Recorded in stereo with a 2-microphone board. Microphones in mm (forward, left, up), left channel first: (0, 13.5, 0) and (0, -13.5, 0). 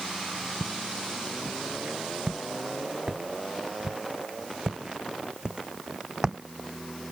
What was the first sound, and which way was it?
Footsteps, 40° right (ahead or behind).